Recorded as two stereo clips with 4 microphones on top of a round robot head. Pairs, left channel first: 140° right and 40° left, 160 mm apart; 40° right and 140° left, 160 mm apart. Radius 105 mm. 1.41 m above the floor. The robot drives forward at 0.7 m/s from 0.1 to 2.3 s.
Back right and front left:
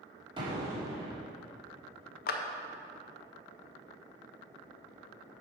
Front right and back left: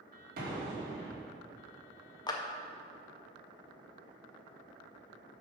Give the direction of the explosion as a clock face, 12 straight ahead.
8 o'clock.